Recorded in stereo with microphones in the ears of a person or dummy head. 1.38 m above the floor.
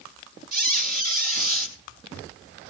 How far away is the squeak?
About 2 m.